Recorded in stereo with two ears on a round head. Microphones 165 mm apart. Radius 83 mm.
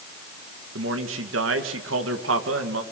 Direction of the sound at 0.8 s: 80° right.